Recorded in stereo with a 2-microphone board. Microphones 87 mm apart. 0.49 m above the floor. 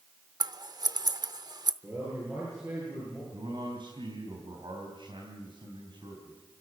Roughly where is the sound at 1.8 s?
Right.